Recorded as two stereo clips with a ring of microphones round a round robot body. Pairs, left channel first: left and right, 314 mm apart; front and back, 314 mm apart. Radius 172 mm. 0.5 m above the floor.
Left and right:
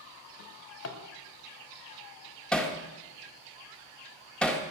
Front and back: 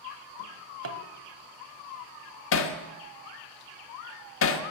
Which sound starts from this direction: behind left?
A drawer, at 0.4 s.